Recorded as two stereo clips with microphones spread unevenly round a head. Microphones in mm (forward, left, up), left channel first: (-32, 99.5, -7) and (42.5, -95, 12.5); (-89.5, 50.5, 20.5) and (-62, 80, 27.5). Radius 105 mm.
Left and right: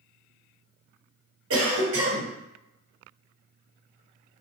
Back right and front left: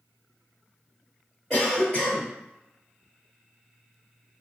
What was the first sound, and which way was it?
A cough, 40° right.